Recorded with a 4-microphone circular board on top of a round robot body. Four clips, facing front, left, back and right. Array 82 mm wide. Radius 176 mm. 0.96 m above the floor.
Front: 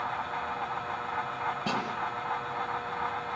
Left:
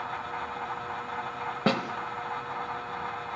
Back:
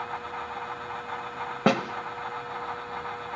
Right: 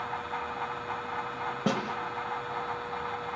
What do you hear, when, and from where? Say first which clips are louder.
1.7 s a snare drum: left 3 dB, back 11 dB; 160° left, 1.1 m